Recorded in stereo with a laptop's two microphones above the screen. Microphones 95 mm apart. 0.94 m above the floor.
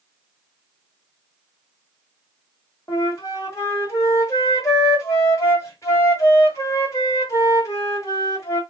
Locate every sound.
2.9 s a flute: 35° left (ahead or behind), 1.5 m